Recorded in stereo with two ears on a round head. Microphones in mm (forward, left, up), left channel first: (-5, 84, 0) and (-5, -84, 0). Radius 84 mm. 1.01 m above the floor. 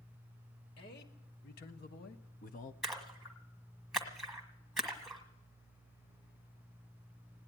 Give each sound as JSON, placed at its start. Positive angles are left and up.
{"t": 0.8, "sound": "a man speaking", "side_deg": 55, "distance_m": 1.9}
{"t": 2.8, "sound": "a splash", "side_deg": 0, "distance_m": 1.4}